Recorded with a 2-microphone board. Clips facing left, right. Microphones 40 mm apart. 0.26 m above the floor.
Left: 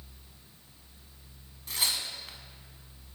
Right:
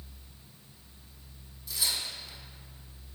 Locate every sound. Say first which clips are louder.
1.7 s tearing paper: left 2 dB; 50° left (ahead or behind), 0.6 m